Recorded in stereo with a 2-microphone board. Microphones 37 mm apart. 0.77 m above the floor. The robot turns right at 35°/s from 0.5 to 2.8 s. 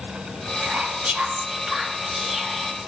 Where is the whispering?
55° right, 0.8 m; by 2.9 s 20° left, 0.8 m.